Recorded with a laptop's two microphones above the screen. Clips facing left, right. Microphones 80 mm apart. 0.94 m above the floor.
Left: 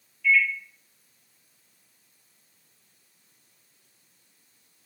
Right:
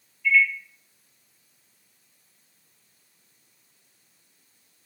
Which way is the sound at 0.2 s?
80° left.